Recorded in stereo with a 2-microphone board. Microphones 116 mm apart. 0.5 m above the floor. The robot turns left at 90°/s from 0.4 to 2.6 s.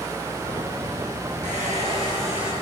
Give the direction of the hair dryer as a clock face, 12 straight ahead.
3 o'clock.